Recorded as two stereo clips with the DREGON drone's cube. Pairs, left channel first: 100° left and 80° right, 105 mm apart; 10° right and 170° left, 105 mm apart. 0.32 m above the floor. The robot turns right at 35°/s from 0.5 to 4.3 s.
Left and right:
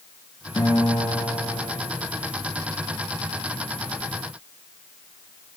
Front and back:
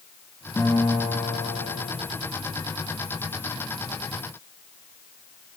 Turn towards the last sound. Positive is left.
turn(degrees=-175)